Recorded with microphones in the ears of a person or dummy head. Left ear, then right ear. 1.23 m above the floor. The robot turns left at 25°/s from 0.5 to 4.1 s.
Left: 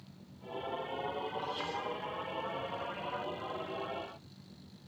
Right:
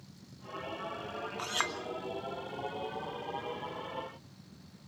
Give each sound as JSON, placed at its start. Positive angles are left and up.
{"t": 1.4, "sound": "a clink", "side_deg": -60, "distance_m": 2.0}